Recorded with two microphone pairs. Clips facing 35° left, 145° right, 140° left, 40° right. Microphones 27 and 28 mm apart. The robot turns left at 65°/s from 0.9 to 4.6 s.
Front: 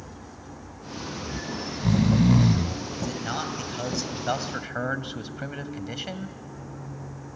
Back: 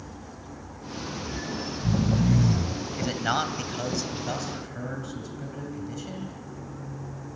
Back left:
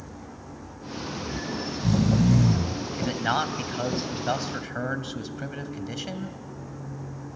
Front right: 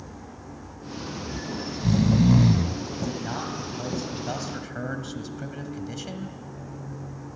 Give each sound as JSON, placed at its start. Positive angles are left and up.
{"t": 1.2, "sound": "snoring", "azimuth_deg": 75, "distance_m": 0.7}
{"t": 3.0, "sound": "a man speaking", "azimuth_deg": 175, "distance_m": 1.9}